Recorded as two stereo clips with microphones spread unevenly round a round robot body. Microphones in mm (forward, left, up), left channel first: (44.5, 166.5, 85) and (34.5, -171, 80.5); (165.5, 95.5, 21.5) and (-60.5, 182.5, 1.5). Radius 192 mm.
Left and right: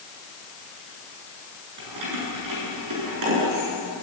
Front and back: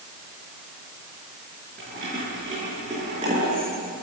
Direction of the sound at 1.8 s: 130° right.